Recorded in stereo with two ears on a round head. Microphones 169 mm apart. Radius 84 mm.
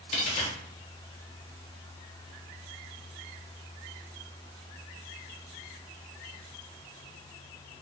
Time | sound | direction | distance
0.1 | a dropped coin | 35° left (ahead or behind) | 0.7 m